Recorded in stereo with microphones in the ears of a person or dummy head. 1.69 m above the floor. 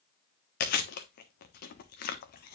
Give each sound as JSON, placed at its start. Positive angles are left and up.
{"t": 0.6, "sound": "chewing", "side_deg": 50, "distance_m": 1.3}